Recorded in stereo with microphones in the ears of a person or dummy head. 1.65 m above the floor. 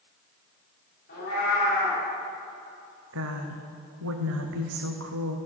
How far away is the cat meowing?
About 2.5 m.